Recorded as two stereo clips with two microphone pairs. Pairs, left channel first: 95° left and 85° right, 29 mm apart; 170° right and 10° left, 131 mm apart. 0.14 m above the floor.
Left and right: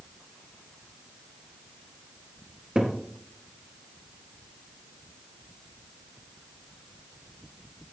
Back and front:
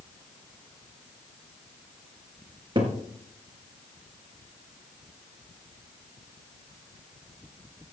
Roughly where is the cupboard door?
Ahead right.